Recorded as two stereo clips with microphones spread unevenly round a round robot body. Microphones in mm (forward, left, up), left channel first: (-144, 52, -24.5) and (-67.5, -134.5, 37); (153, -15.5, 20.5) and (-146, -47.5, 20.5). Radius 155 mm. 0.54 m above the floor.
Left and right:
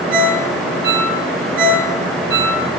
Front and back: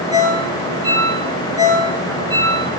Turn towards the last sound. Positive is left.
turn(degrees=-95)